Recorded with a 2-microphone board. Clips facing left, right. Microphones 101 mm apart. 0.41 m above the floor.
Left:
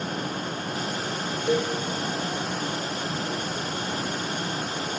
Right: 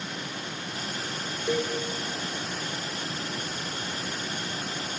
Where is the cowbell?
15° right (ahead or behind), 5 m.